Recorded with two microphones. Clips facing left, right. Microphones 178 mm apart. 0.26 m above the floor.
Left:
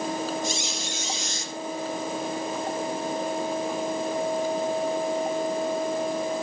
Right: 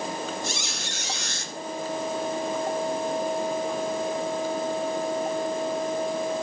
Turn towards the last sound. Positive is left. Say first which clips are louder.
# left 3 dB
turn(degrees=-75)  # may be behind; listen again after turning